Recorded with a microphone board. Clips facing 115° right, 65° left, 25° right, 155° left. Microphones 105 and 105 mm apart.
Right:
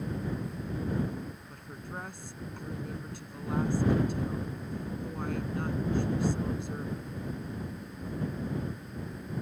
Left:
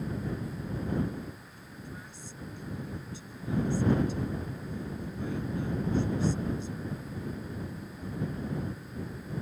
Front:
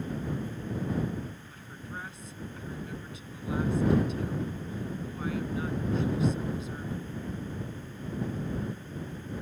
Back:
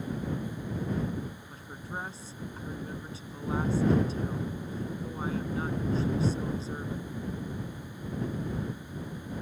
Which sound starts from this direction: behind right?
A woman speaking, at 1.5 s.